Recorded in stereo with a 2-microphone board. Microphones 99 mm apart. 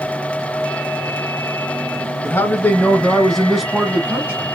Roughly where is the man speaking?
Left.